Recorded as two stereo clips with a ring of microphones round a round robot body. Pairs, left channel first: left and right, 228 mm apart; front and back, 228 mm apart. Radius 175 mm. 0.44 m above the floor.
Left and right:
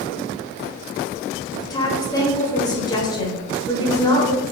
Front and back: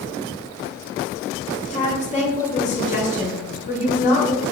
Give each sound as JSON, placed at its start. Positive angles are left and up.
{"t": 1.7, "sound": "a woman speaking", "azimuth_deg": 30, "distance_m": 1.2}